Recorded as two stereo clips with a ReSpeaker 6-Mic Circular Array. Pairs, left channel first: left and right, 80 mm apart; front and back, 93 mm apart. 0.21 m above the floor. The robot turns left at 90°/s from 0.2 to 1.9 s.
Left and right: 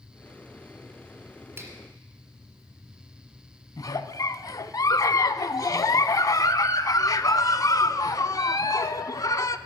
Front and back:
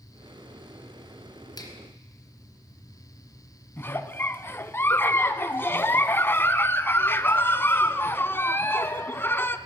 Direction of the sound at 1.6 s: 30° right.